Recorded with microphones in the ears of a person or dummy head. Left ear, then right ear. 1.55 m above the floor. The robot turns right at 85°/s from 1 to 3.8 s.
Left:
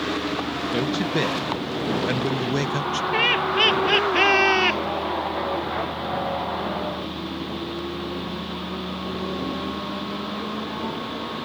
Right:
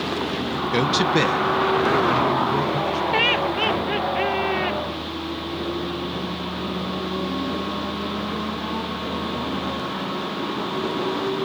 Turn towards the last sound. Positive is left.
turn(degrees=50)